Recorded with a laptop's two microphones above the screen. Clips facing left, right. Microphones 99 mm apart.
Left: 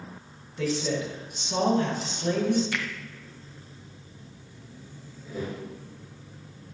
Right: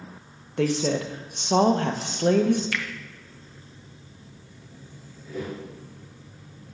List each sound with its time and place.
0.6 s a woman speaking: 60° right (ahead or behind), 0.9 m
2.7 s a finger snap: 20° left (ahead or behind), 0.6 m
5.2 s a whoosh: 15° left (ahead or behind), 3 m